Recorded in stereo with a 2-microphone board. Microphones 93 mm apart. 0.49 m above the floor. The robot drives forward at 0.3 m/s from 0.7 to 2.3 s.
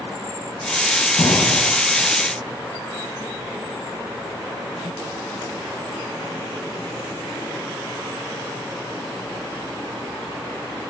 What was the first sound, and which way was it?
An explosion, 45° left (ahead or behind).